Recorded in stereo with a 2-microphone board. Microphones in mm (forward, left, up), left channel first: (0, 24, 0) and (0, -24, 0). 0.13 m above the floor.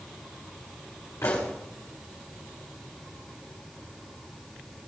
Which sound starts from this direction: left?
A pop, at 1.2 s.